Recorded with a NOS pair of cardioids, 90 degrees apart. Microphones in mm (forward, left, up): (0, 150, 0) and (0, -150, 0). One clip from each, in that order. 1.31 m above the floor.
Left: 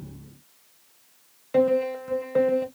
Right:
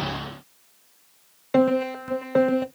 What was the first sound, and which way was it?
A piano, 30° right.